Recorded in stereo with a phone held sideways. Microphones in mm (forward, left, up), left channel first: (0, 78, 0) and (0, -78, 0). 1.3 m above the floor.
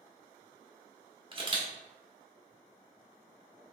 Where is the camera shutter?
35° right (ahead or behind), 1.0 m.